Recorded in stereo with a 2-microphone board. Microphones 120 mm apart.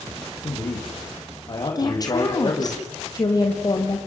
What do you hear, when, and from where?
0.4 s a man speaking: 40° left (ahead or behind), 8 m
1.8 s a woman speaking: 30° left (ahead or behind), 5.5 m